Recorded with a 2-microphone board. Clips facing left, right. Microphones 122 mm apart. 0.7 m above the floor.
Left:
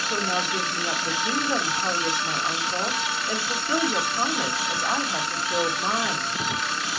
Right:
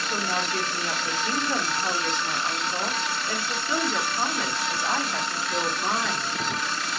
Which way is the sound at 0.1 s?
10° left (ahead or behind).